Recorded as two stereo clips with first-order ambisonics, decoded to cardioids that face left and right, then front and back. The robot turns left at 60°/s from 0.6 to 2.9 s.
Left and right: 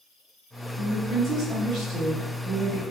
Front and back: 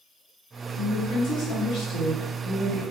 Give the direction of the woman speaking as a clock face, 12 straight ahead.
11 o'clock.